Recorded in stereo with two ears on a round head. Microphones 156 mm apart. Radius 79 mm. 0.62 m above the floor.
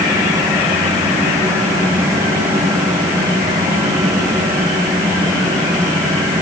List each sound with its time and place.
Only background noise.